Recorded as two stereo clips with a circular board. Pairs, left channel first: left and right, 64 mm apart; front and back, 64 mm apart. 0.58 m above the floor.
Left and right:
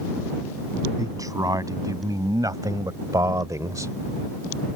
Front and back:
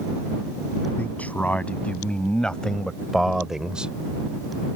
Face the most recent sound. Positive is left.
turn(degrees=-110)